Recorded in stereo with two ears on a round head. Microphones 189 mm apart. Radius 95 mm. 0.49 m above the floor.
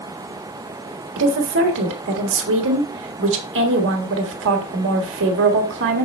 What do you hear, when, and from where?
1.2 s a woman speaking: 60° right (ahead or behind), 1.5 m